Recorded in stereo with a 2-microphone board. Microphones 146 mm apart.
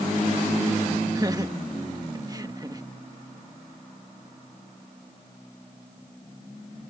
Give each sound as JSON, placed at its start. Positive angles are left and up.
{"t": 1.1, "sound": "laughter", "side_deg": -25}